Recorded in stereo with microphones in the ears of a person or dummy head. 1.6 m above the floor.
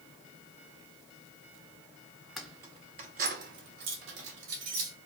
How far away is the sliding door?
No sliding door in this recording.